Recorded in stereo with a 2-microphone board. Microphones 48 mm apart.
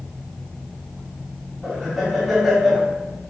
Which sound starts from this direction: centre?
Laughter, at 1.6 s.